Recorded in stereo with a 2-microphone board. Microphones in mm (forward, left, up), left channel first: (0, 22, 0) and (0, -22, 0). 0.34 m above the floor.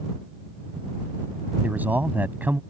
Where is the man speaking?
40° right (ahead or behind).